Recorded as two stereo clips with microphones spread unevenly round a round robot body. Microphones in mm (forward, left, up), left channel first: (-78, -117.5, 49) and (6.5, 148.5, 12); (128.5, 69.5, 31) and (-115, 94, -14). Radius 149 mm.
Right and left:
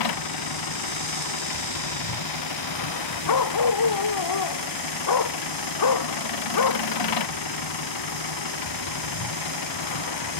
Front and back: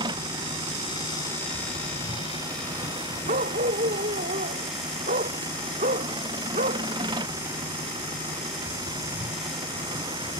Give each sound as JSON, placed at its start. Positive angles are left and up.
{"t": 0.0, "sound": "an engine running", "azimuth_deg": -110}
{"t": 3.3, "sound": "a dog barking", "azimuth_deg": -115}